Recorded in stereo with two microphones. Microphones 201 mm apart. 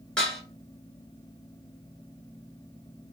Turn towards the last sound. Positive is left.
turn(degrees=5)  # may be behind; listen again after turning